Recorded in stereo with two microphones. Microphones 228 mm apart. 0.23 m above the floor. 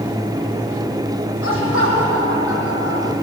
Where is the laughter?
65° left (ahead or behind), 9.5 m; by 3.1 s 55° left (ahead or behind), 8 m.